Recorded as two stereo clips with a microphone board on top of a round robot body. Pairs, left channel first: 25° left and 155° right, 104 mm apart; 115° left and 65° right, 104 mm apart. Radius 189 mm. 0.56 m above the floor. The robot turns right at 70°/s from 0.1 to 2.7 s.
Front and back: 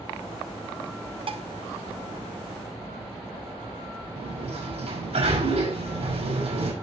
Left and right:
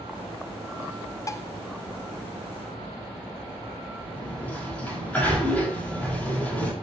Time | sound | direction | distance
1.3 | dishes clattering | 170° left | 0.8 m
4.2 | a sliding door | 170° right | 5 m